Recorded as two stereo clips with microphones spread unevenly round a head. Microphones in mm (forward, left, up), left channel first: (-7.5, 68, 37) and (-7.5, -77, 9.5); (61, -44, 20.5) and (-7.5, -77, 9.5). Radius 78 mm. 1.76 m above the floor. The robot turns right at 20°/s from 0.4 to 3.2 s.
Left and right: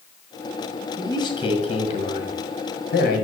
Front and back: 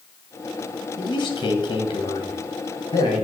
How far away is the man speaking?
About 1.8 m.